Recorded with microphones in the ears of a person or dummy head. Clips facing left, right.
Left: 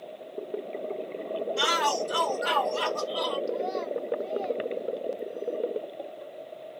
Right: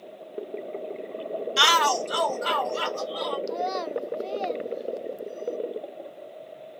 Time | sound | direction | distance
1.6 | a shout | 85° right | 0.5 m
3.5 | a child speaking | 65° right (ahead or behind) | 0.5 m